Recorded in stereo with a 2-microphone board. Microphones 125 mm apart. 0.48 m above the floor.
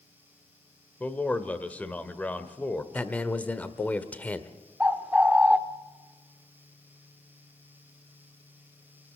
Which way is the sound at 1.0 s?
10° left (ahead or behind).